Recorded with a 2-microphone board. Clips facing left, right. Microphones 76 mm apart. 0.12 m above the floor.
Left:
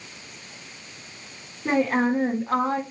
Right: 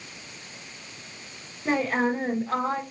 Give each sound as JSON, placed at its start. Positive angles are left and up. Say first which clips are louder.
{"t": 1.6, "sound": "a woman speaking", "louder": "left 3 dB", "side_deg": 35, "distance_m": 5.5}